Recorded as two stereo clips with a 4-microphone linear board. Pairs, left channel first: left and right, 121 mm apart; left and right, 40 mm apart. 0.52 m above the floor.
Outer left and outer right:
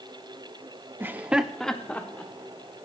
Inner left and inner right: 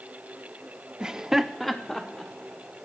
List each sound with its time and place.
1.0 s laughter: 20° right (ahead or behind), 0.7 m; by 2.9 s 20° left (ahead or behind), 1.5 m